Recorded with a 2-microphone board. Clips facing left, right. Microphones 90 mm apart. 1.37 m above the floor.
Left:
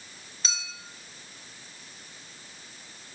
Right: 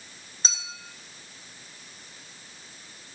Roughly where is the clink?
Right.